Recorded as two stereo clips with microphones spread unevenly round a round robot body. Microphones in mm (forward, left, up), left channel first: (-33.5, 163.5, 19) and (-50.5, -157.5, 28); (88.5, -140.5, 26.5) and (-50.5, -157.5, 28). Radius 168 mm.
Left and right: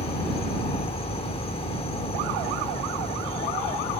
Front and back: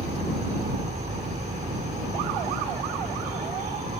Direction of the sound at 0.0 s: 155° left.